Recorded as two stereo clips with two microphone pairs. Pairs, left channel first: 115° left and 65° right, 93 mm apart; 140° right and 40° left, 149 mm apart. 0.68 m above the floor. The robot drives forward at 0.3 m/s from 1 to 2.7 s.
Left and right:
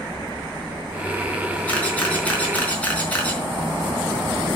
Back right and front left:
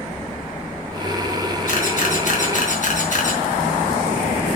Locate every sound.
1.7 s a camera shutter: 170° right, 4 m